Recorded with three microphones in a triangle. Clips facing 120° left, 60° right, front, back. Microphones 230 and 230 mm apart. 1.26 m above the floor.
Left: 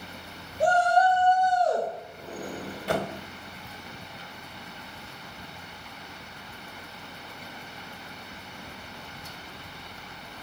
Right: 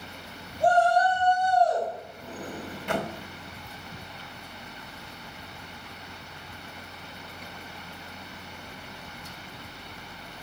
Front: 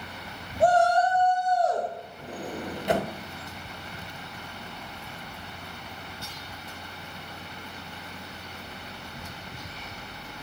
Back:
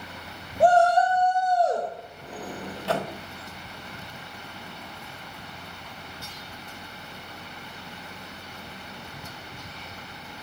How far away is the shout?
About 2 m.